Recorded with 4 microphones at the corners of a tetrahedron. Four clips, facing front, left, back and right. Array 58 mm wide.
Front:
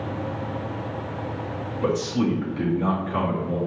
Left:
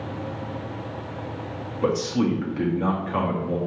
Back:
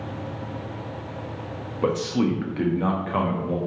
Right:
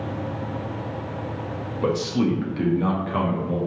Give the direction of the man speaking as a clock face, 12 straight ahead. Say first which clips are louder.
Even, back 1 dB; 7 o'clock.